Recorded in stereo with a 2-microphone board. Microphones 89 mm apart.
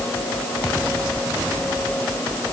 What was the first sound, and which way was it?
Only background noise.